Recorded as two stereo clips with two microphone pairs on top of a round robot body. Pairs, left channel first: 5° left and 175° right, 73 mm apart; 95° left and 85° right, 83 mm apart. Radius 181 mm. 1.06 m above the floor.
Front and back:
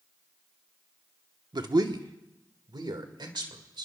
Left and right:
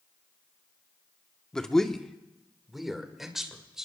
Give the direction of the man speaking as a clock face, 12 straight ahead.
6 o'clock.